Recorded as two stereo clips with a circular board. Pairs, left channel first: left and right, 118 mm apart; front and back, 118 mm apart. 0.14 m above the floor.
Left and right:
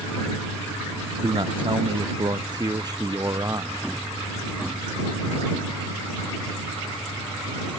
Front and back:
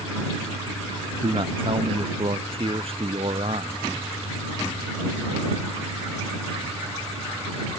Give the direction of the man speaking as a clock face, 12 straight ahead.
5 o'clock.